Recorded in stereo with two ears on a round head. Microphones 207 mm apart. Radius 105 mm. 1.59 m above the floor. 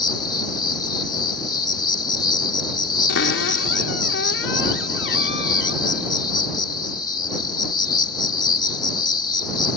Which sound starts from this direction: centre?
An insect, at 0.0 s.